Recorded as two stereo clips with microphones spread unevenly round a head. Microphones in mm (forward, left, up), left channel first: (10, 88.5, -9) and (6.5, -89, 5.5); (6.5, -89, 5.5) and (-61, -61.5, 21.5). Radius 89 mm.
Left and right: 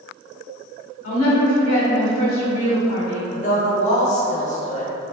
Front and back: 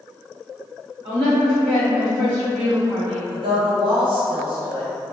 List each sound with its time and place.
1.0 s a woman speaking: 90° left, 2.0 m
3.3 s a woman speaking: 140° left, 0.9 m